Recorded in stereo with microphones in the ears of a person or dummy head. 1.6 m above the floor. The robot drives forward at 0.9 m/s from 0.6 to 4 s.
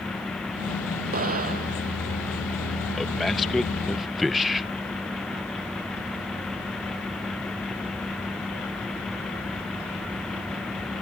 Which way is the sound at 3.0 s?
Centre (ahead or behind).